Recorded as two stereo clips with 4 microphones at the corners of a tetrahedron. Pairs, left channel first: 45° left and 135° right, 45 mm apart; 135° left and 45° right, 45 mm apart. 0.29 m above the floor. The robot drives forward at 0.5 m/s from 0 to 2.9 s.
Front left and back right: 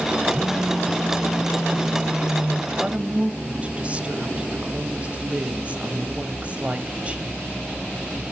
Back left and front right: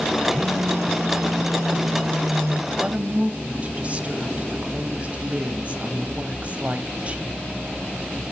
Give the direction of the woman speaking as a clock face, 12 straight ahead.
3 o'clock.